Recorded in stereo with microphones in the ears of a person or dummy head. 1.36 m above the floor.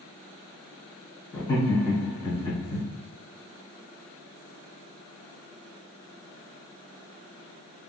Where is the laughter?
25° left (ahead or behind), 1.3 m.